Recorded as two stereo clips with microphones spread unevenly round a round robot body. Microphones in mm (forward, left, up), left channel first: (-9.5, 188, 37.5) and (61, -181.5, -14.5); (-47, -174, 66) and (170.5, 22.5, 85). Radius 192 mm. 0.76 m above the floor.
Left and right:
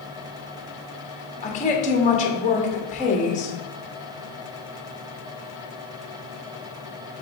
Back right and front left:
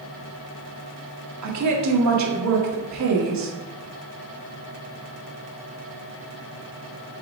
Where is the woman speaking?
25° left, 1.5 m.